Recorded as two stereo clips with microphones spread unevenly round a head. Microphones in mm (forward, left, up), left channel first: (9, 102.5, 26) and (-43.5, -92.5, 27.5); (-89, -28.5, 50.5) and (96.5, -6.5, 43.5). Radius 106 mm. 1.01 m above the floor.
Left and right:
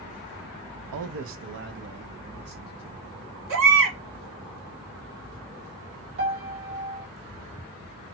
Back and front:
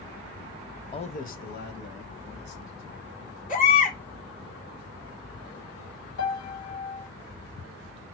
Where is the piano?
145° right, 1.6 m.